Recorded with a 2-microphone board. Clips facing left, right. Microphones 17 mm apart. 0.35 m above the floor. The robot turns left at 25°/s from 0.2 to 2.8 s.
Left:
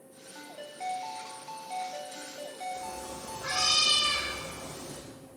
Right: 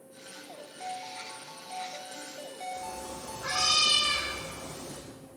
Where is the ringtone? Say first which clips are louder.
Left 4 dB; 75° left, 1.3 m; by 3.8 s 15° left, 1.3 m.